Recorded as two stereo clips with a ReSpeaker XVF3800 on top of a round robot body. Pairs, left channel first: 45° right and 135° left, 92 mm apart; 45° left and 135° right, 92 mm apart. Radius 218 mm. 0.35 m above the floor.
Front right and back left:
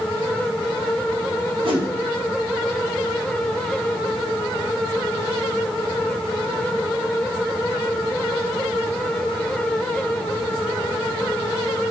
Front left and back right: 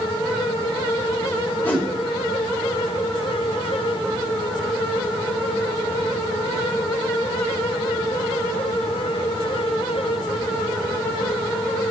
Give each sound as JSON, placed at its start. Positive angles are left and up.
{"t": 1.6, "sound": "a whoosh", "azimuth_deg": 115, "distance_m": 2.0}